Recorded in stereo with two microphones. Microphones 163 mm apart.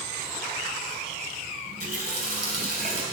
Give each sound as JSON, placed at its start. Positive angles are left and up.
{"t": 1.7, "sound": "a running tap", "side_deg": -55, "distance_m": 3.0}